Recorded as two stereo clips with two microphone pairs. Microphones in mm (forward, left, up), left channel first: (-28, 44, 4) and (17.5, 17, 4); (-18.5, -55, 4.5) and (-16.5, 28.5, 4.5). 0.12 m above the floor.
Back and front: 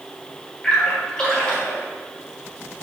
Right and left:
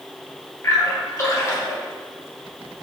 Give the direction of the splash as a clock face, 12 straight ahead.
5 o'clock.